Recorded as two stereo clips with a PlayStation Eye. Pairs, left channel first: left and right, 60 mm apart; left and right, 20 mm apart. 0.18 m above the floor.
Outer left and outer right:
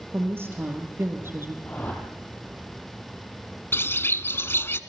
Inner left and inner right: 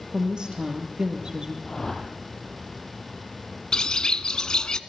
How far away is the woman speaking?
About 5 m.